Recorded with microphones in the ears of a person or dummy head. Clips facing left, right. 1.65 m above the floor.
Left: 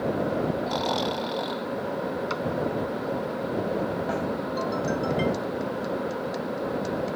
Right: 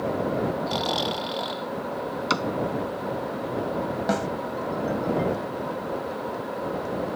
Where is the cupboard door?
75° right (ahead or behind).